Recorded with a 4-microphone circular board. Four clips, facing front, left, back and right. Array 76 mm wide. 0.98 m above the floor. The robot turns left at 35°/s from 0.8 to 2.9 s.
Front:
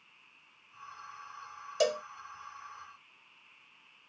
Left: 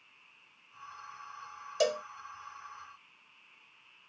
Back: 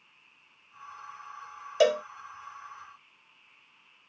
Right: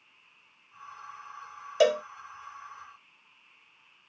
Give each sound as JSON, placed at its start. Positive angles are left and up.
{"t": 1.8, "sound": "a cowbell", "azimuth_deg": -130}